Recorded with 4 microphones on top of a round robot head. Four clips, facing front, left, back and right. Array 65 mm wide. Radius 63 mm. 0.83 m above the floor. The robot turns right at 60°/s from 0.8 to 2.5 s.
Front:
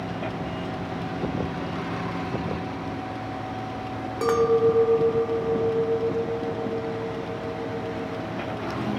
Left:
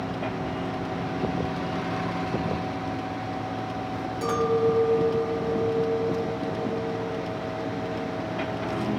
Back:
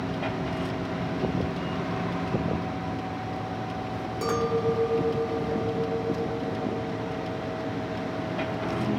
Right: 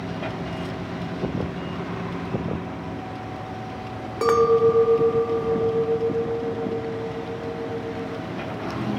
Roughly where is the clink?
Right.